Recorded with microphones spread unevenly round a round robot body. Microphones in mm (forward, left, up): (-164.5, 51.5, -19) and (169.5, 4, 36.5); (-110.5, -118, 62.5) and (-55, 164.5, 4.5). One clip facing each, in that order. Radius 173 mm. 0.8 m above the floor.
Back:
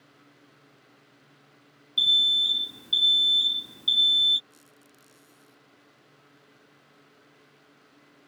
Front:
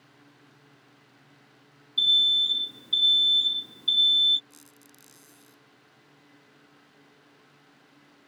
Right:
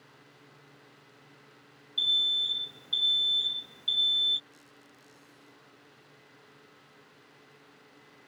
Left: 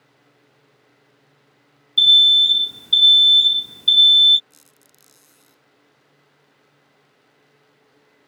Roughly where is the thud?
I don't hear a thud.